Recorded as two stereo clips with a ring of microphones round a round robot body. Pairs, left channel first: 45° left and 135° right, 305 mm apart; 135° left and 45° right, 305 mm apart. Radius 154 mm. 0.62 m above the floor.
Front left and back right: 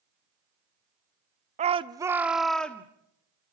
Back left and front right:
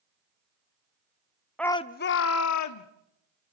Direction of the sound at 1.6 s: 140° right.